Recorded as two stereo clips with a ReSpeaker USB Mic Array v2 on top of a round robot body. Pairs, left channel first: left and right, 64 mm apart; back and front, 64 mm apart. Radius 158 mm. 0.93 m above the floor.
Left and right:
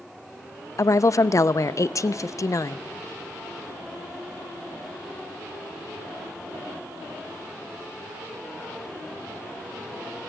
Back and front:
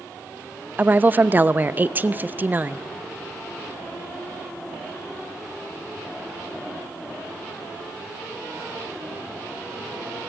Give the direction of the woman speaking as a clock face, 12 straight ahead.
10 o'clock.